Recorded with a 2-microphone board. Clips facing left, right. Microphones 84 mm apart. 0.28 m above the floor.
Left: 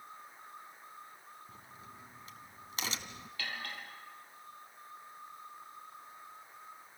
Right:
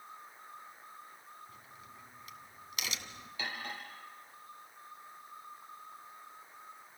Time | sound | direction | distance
1.5 | a crack | 35° left (ahead or behind) | 1.7 m
3.4 | cutlery clinking | 20° right (ahead or behind) | 5 m